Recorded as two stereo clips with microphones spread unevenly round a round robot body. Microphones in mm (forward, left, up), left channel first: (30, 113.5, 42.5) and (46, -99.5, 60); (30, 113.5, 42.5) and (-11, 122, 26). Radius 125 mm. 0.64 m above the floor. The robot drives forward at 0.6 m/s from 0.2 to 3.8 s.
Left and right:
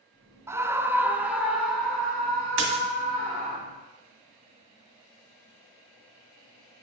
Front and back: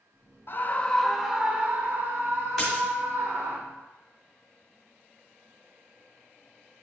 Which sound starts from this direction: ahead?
A scream, at 0.5 s.